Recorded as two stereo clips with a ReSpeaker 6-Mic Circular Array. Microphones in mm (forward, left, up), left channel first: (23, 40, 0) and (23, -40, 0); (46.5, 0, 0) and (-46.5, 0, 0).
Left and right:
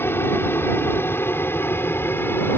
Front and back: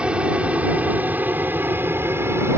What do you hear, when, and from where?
0.0 s an aircraft: 115° left; by 2.6 s 135° left